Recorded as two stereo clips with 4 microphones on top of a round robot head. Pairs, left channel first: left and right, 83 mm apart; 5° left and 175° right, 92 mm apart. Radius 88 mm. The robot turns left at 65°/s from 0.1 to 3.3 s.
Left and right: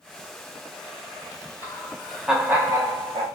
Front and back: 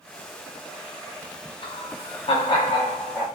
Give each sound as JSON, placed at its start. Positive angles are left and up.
{"t": 1.6, "sound": "laughter", "azimuth_deg": 35, "distance_m": 1.0}